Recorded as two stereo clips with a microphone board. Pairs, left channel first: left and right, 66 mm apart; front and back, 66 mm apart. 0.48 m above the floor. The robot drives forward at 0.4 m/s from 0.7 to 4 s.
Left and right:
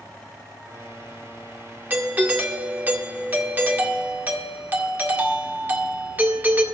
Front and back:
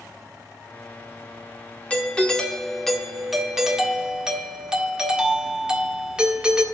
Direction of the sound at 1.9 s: 55° right.